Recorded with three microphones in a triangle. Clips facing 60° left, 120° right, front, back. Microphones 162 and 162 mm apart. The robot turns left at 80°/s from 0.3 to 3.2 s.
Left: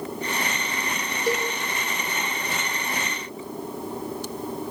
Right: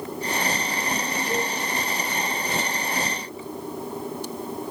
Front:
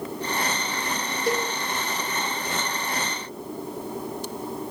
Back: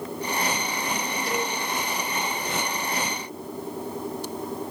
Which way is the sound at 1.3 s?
45° left.